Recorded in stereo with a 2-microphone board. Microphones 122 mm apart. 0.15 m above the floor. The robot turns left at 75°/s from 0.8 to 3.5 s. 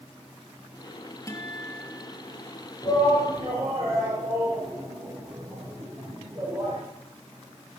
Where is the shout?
30° left (ahead or behind), 5 m; by 6.8 s 20° right (ahead or behind), 5 m.